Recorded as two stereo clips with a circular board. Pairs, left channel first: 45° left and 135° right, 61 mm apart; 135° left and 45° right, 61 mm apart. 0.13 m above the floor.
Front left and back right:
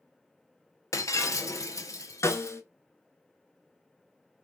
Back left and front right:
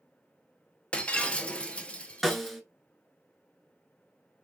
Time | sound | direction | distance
0.9 | breaking glass | 65° left | 0.6 m
2.2 | a snare drum | 45° left | 0.7 m